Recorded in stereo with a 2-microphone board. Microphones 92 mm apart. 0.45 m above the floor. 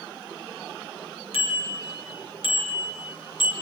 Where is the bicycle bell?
80° left, 5.5 m; by 3.5 s 65° left (ahead or behind), 5 m.